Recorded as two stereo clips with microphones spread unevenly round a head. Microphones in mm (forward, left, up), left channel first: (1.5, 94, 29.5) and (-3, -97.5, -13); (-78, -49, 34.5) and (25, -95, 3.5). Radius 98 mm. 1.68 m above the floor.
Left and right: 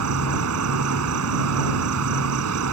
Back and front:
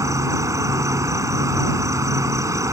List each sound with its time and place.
0.0 s an insect: 90° right